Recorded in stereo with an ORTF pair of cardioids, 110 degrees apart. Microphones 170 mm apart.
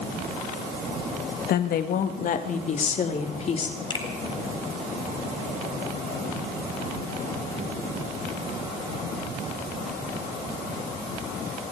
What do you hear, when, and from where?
1.5 s a woman speaking: 65° left, 1.5 m; by 3.8 s 40° left, 3 m
3.9 s a finger snap: 25° left, 3 m